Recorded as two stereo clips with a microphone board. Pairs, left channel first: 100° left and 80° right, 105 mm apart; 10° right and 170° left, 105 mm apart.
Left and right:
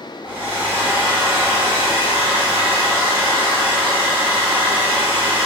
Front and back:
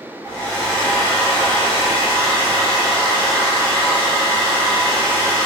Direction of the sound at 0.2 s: 90° right.